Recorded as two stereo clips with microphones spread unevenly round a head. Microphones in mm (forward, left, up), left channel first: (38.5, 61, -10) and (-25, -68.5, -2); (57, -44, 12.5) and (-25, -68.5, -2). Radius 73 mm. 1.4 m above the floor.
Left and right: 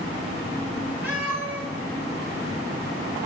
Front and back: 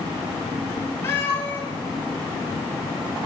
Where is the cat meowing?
40° right, 3.5 m.